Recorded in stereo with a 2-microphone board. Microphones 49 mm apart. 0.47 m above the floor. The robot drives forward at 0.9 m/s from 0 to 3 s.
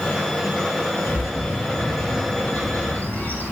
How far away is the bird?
About 3.5 m.